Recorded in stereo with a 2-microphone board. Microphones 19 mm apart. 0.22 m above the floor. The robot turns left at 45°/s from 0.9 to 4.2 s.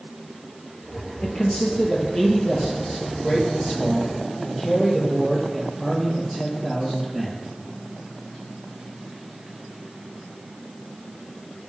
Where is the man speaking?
120° left, 5 m; by 7.4 s 15° right, 5 m.